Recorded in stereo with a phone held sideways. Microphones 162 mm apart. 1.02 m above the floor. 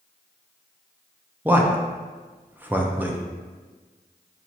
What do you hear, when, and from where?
1.4 s a man speaking: 10° right (ahead or behind), 0.5 m